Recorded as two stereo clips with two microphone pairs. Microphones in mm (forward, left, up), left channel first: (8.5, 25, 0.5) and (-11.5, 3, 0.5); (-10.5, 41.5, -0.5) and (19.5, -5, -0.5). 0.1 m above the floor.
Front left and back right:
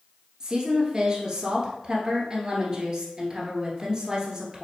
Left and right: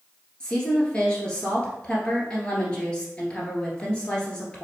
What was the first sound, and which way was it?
A woman speaking, 175° right.